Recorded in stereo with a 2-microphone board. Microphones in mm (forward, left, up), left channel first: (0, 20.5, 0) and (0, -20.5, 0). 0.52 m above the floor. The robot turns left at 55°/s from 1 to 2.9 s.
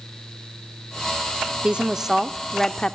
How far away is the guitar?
No guitar in this recording.